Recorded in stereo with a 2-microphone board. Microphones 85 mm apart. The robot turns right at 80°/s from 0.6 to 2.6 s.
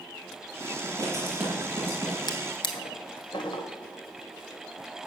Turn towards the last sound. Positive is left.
turn(degrees=80)